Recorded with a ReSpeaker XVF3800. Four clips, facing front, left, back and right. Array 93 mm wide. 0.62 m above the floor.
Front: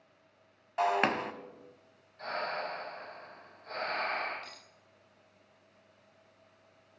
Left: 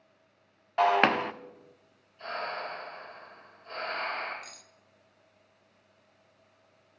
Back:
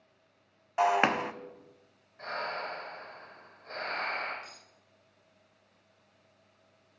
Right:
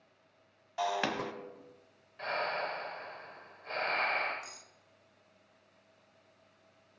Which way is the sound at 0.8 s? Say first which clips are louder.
Left 10 dB, back 3 dB; 110° left.